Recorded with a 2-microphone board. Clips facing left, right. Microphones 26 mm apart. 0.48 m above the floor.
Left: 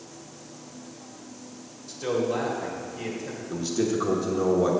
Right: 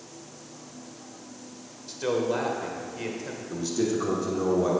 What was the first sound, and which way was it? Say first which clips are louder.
A man speaking: even; 20° right (ahead or behind).